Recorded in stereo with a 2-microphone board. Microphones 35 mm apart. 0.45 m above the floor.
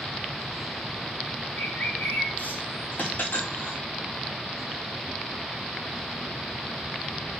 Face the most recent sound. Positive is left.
turn(degrees=80)